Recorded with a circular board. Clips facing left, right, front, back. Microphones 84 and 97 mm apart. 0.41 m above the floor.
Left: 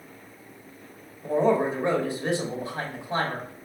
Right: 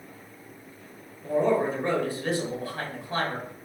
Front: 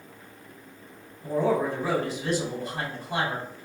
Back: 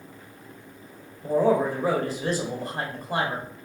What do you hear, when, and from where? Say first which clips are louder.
1.2 s a man speaking: left 1 dB, back 3 dB; 150° left, 1.4 m